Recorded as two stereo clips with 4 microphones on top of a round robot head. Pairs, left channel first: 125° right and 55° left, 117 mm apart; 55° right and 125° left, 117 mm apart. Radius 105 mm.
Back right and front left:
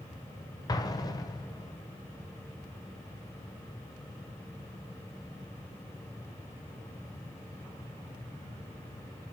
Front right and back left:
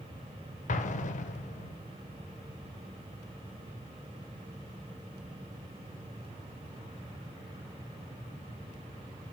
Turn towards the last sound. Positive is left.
turn(degrees=-65)